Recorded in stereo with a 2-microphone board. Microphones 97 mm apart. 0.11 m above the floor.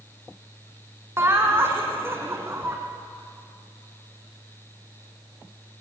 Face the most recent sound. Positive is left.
turn(degrees=-25)  # may be behind; listen again after turning